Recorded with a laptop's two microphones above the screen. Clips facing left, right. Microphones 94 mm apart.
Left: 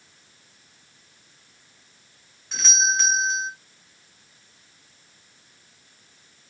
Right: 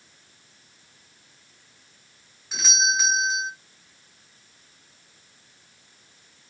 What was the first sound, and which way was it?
A doorbell, 5° right (ahead or behind).